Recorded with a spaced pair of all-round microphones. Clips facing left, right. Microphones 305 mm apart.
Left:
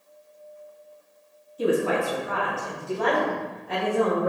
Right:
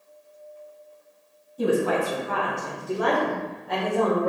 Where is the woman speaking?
55° right (ahead or behind), 1.2 m; by 4.3 s 15° left (ahead or behind), 1.2 m.